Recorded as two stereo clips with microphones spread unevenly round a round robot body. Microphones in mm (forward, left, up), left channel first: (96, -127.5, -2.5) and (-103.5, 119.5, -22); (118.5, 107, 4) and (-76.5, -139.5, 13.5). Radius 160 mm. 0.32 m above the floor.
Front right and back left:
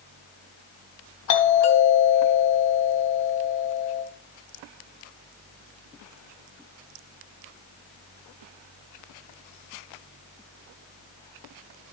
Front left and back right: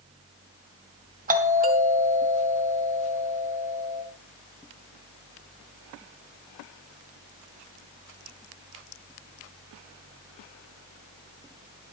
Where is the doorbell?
70° right, 2.5 m.